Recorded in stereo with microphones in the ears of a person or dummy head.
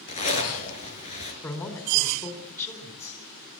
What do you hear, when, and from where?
0.1 s a zipper: 40° left (ahead or behind), 4.5 m
1.4 s a man speaking: 15° left (ahead or behind), 4 m